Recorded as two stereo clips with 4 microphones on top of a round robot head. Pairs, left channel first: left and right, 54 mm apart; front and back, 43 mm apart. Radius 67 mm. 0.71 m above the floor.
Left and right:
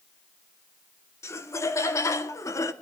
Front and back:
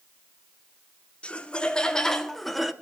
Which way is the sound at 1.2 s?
60° left.